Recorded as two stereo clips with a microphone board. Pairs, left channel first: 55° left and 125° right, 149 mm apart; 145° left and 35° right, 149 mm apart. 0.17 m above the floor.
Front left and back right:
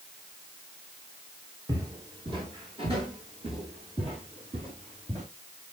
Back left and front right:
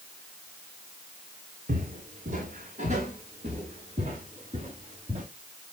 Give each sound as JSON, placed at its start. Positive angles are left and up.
{"t": 1.7, "sound": "footsteps", "azimuth_deg": -60, "distance_m": 3.0}